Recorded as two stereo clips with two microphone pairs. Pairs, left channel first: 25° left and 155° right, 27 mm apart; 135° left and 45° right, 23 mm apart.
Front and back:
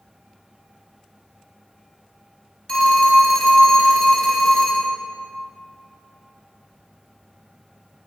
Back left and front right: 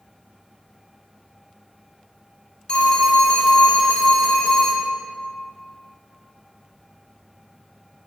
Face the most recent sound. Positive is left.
turn(degrees=80)